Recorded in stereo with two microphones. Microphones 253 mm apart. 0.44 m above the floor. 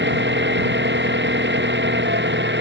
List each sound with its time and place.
0.0 s an engine running: 45° right (ahead or behind)